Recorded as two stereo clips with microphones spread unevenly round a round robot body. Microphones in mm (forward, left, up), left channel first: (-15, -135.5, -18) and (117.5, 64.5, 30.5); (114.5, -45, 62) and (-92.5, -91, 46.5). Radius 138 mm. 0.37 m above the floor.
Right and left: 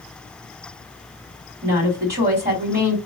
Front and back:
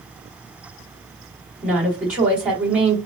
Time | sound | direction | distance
1.6 | a woman speaking | 110° left | 2 m